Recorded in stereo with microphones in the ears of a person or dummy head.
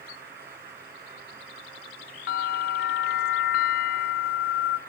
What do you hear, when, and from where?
2.3 s a bell: 60° left (ahead or behind), 0.7 m